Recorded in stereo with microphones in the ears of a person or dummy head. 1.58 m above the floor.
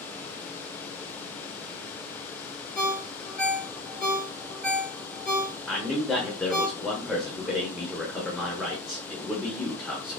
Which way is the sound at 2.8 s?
10° left (ahead or behind).